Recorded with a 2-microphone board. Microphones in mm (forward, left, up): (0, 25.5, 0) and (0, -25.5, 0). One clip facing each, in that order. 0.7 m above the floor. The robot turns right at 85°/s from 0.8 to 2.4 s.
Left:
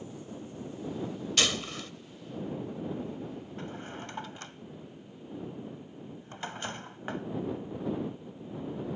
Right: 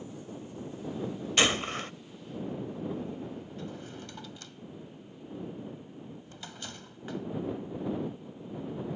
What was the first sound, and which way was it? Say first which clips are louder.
A gunshot: right 4 dB; 145° right.